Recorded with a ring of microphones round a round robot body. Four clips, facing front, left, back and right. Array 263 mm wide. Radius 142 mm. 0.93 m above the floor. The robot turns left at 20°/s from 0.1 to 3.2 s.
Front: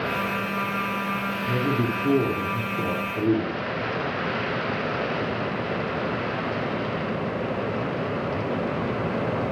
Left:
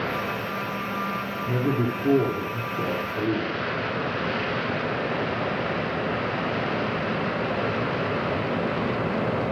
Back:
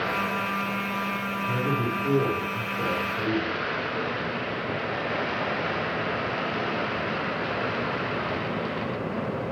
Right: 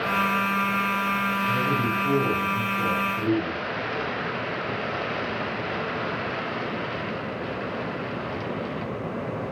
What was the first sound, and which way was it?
A man speaking, 65° left.